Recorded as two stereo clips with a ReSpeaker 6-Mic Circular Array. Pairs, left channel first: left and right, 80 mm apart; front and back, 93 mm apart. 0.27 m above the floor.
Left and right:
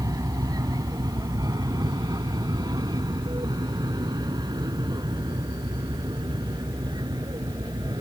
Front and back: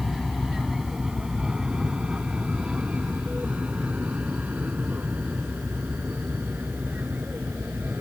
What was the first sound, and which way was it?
An aircraft, 90° right.